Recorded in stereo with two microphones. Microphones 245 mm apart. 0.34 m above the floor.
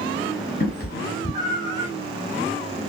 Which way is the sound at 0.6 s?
40° left (ahead or behind).